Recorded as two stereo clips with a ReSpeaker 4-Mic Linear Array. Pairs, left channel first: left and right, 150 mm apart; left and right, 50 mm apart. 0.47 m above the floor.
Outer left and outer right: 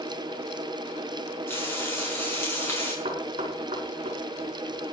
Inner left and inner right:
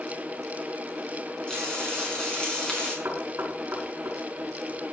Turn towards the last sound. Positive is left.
turn(degrees=-40)  # may be behind; listen again after turning